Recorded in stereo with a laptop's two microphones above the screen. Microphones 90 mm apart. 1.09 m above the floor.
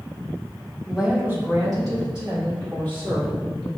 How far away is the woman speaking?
About 0.9 m.